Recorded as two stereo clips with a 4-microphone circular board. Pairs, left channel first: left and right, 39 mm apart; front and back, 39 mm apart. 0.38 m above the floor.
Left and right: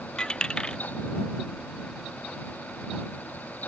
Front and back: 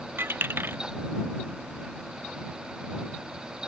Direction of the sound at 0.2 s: 160° left.